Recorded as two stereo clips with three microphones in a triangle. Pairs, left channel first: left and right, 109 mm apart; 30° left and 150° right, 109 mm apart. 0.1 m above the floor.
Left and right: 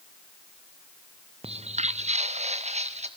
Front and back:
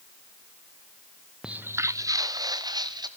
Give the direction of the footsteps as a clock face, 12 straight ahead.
2 o'clock.